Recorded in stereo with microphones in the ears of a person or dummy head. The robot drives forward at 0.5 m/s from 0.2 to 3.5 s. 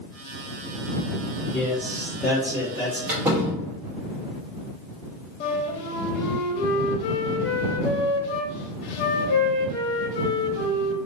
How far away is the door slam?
About 0.7 m.